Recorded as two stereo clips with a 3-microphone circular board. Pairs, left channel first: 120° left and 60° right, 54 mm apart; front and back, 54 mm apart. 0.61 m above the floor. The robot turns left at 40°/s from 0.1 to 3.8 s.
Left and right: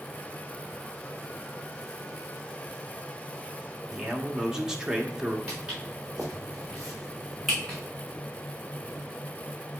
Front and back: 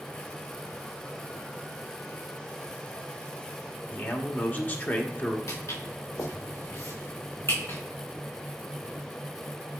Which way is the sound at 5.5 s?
10° left.